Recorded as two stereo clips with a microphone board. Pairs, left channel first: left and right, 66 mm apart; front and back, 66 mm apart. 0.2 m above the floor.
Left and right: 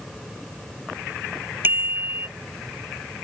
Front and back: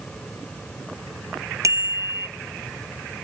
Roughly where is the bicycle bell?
Behind right.